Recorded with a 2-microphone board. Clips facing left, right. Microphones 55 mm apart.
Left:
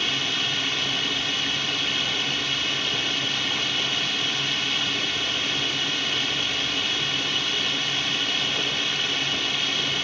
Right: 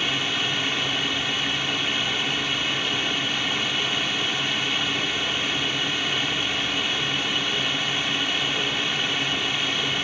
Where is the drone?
10° right (ahead or behind).